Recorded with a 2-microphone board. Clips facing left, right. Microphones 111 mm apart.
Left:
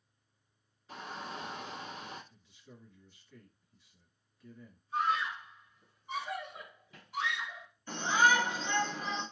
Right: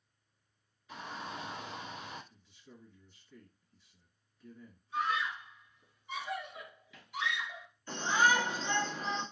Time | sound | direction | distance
0.9 | a shout | 35° left (ahead or behind) | 1.9 m
2.3 | a man speaking | centre (ahead or behind) | 1.6 m
4.9 | a scream | 40° left (ahead or behind) | 1.3 m
7.9 | a shout | 20° left (ahead or behind) | 1.7 m